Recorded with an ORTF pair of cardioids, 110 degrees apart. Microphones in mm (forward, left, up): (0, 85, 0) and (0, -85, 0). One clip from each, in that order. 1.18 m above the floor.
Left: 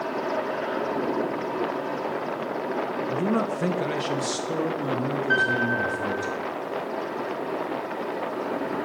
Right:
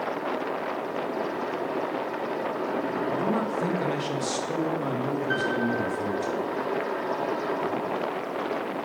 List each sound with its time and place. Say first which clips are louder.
3.1 s a man speaking: left 2 dB; 45° left, 0.8 m; by 6.3 s 5° right, 3.5 m
5.3 s a piano: left 6 dB; 15° left, 2.5 m